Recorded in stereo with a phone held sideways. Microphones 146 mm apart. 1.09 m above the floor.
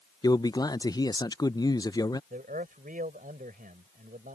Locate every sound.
0.2 s a man speaking: 25° left (ahead or behind)
2.3 s a man speaking: 75° right (ahead or behind)